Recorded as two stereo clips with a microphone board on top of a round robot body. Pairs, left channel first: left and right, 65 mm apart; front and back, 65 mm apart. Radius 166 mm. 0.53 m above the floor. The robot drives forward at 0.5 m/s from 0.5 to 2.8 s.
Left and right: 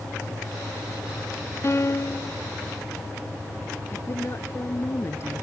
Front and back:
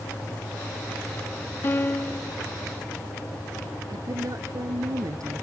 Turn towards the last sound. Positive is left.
turn(degrees=145)